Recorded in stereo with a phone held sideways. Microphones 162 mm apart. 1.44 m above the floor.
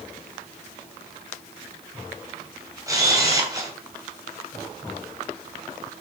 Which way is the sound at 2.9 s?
20° right (ahead or behind).